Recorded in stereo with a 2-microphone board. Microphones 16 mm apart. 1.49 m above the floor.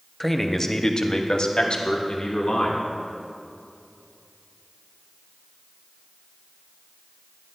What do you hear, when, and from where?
0.2 s a man speaking: 10° left (ahead or behind), 0.6 m; by 2.9 s 75° left (ahead or behind), 1.4 m